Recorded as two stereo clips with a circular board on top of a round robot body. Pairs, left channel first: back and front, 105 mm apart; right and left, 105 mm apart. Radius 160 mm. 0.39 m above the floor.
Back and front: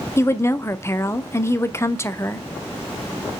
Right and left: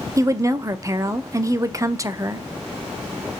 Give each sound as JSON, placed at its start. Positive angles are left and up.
{"t": 0.2, "sound": "a woman speaking", "azimuth_deg": 130, "distance_m": 1.0}